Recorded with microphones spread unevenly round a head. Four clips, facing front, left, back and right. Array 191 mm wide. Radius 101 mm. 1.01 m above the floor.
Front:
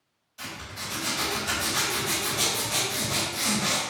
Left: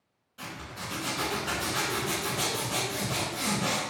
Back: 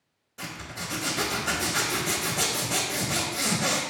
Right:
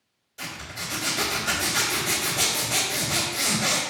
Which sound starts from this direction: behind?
A zipper, at 0.4 s.